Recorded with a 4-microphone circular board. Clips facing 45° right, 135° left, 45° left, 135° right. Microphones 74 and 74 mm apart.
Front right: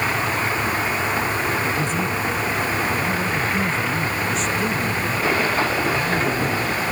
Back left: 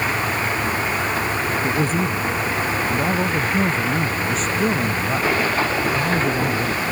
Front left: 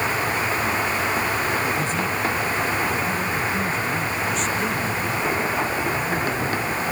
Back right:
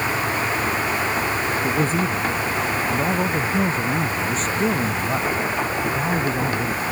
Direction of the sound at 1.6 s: Straight behind.